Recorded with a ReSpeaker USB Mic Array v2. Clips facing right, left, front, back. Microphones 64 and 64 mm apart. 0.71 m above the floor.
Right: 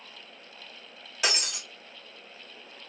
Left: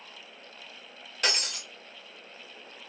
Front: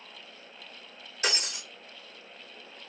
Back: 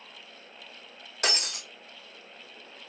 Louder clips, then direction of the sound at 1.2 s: Right 1 dB, back 1 dB; 175° right.